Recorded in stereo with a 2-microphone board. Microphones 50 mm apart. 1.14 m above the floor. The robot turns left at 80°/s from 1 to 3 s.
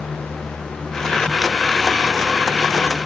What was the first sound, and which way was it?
Only background noise.